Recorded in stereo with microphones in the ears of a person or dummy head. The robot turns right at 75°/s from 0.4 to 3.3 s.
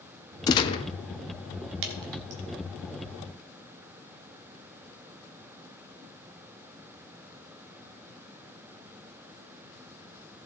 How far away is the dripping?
About 1.4 m.